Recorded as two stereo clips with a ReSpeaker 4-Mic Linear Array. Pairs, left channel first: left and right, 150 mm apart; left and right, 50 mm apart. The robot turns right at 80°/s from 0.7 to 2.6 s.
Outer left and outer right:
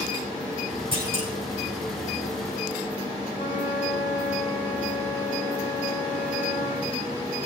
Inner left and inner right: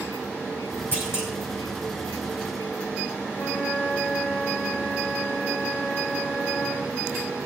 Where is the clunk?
35° right, 5.5 m; by 1.3 s straight ahead, 5.5 m.